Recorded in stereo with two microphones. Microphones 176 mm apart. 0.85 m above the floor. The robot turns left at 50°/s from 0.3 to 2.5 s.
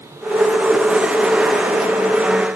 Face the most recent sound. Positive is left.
No sound to turn to.